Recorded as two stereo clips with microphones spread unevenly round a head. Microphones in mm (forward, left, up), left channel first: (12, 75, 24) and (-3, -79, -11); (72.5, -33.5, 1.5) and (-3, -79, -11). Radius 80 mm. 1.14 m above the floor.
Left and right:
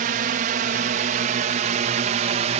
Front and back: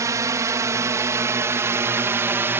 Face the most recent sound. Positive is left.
turn(degrees=-100)